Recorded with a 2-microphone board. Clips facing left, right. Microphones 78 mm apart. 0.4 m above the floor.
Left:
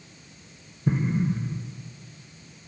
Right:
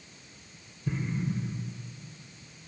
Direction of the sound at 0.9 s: 45° left (ahead or behind).